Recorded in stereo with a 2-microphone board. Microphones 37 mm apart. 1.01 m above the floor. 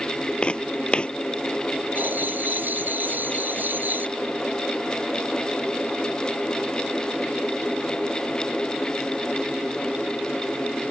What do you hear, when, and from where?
0.4 s footsteps: 30° left (ahead or behind)
1.9 s writing: 65° right (ahead or behind)